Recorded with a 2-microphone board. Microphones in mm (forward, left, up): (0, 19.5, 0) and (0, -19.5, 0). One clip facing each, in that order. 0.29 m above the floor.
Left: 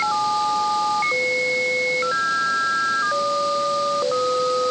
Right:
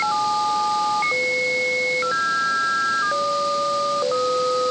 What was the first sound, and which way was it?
Only background noise.